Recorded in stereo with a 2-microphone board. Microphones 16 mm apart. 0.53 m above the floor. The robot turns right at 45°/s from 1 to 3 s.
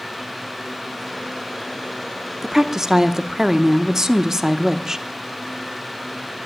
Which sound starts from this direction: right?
A woman speaking, at 2.4 s.